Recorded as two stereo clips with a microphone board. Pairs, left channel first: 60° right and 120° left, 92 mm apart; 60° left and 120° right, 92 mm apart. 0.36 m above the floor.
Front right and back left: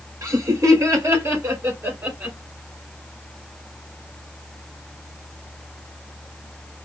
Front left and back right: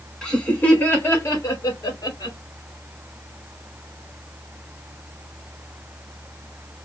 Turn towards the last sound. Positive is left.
turn(degrees=55)